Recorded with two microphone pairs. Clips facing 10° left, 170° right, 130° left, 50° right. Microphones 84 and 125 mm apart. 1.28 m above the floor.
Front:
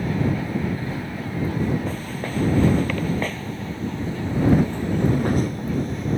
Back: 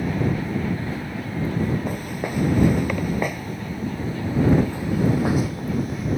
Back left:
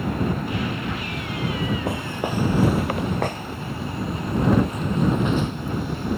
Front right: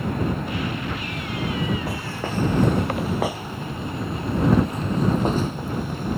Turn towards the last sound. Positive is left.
turn(degrees=-85)